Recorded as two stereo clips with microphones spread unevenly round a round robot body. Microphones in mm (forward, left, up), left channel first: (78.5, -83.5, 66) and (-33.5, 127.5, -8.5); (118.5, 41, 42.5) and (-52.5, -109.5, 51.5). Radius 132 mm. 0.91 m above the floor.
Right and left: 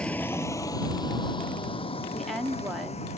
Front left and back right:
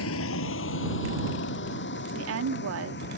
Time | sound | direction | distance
0.0 | a vehicle | 20° left | ?
2.1 | a woman speaking | 160° right | ?